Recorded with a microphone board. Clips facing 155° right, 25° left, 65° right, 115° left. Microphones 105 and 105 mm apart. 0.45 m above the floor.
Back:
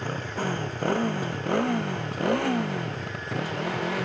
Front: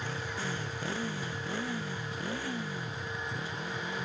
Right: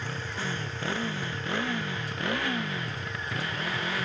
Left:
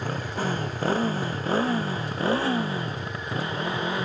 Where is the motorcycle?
160° left; by 4.0 s straight behind.